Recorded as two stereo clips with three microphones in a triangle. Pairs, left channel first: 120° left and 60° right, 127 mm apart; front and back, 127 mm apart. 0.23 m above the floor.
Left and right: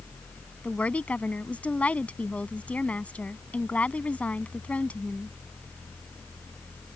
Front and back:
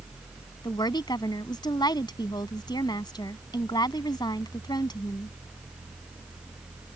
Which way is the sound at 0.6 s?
45° left.